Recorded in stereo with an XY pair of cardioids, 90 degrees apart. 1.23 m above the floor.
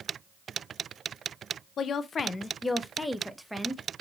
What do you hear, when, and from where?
1.8 s a woman speaking: 70° left, 0.8 m; by 3.8 s 5° right, 1.1 m